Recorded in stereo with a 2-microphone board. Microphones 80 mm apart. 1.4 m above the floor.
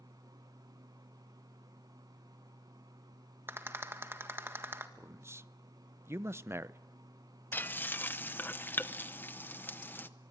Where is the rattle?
30° right (ahead or behind), 1.6 m.